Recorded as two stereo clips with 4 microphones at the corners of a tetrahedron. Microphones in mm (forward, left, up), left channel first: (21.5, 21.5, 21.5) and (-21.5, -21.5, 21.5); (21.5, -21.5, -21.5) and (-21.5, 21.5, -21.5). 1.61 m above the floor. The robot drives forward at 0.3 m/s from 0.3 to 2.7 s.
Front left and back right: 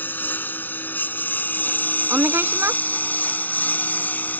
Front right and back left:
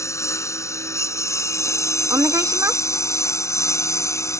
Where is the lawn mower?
10° right; by 4.4 s 15° right.